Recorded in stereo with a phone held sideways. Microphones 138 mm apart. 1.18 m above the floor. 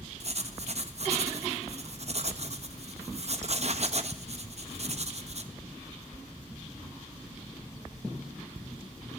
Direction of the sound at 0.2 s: 50° right (ahead or behind).